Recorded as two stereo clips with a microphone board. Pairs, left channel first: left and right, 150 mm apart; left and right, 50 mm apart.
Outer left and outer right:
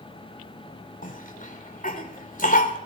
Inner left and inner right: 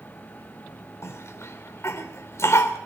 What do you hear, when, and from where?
1.0 s a cough: 65° left (ahead or behind), 3 m